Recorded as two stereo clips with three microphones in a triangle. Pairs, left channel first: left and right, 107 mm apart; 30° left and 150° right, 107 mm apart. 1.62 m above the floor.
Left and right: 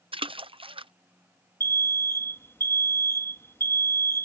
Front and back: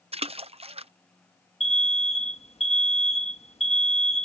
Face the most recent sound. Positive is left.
turn(degrees=25)